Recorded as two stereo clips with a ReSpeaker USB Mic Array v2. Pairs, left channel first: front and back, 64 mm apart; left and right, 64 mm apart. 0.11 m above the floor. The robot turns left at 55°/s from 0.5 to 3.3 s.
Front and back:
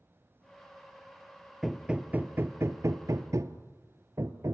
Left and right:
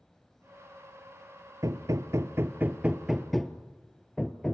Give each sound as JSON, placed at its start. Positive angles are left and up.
{"t": 1.6, "sound": "hammering", "azimuth_deg": -90, "distance_m": 0.9}